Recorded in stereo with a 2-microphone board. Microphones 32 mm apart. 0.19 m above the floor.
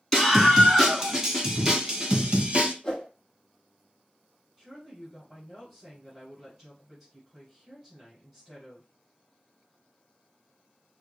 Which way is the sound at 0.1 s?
10° left (ahead or behind).